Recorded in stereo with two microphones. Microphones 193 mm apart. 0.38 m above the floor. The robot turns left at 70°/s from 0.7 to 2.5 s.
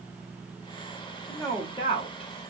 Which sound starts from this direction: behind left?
A woman speaking, at 1.3 s.